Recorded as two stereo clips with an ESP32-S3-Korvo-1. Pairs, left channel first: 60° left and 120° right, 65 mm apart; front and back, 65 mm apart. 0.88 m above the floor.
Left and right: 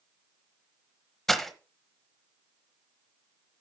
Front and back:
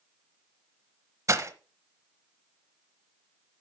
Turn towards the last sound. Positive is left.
turn(degrees=145)